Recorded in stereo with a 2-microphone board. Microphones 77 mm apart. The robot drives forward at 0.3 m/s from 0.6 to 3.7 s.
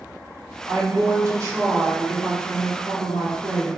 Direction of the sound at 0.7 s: 40° right (ahead or behind).